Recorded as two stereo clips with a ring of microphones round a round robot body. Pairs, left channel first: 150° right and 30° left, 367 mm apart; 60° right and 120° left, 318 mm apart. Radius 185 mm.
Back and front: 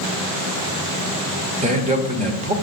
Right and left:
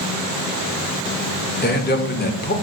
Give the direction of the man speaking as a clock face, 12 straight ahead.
1 o'clock.